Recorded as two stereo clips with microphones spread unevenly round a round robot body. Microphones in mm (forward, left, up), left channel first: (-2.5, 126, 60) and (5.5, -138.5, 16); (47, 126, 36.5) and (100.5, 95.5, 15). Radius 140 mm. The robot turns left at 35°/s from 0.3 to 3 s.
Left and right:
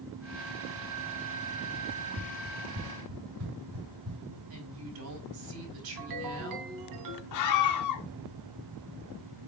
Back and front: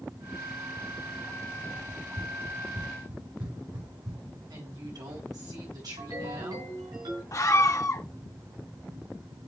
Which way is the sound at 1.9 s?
30° right.